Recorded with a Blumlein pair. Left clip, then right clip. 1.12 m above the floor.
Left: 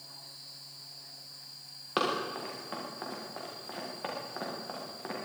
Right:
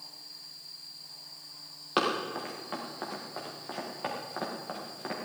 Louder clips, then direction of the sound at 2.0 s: Right 2 dB; 5° right.